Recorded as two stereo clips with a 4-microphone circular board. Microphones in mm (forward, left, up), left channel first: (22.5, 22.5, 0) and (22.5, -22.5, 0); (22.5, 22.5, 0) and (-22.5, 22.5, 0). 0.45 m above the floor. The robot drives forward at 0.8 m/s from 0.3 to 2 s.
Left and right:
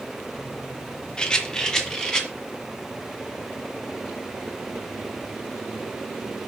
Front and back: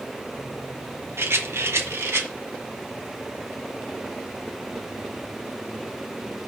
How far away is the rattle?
About 1.0 m.